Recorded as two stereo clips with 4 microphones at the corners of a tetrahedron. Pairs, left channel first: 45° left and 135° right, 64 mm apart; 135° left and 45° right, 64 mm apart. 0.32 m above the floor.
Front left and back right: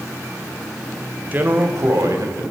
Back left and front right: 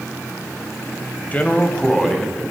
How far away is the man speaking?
About 1.4 m.